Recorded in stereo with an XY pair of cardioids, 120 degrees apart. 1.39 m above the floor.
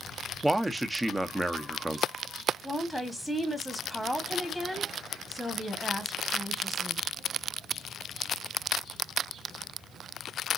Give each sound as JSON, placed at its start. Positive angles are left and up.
{"t": 0.4, "sound": "a man speaking", "azimuth_deg": -10, "distance_m": 0.6}
{"t": 2.6, "sound": "a woman speaking", "azimuth_deg": 0, "distance_m": 1.2}